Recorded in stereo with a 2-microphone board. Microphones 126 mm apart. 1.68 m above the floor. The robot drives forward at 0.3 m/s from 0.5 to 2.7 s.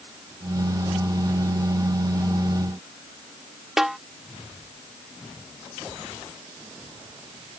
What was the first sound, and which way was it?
A snare drum, 5° right (ahead or behind).